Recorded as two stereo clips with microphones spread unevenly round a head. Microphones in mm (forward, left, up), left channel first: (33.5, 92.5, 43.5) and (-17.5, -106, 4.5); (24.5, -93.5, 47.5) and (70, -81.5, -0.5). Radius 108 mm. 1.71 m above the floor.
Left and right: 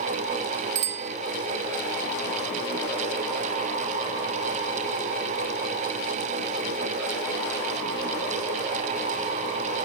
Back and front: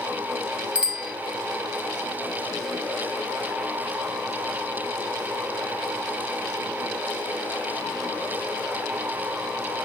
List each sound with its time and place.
0.8 s a bicycle bell: 70° right